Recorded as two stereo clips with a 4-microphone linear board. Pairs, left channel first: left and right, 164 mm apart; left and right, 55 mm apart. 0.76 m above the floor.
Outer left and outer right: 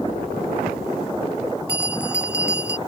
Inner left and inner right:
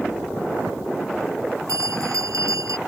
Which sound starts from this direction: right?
A bell, at 1.7 s.